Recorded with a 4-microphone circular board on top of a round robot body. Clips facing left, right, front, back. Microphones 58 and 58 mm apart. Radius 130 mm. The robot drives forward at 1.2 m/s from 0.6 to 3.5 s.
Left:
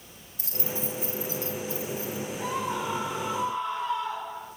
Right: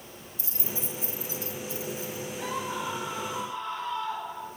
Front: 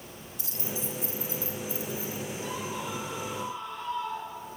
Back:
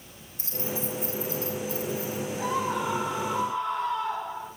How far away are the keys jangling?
About 2.5 m.